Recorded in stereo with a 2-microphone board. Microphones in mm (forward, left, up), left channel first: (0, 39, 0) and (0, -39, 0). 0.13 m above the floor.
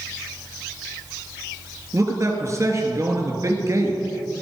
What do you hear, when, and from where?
1.9 s a man speaking: 40° right (ahead or behind), 2.5 m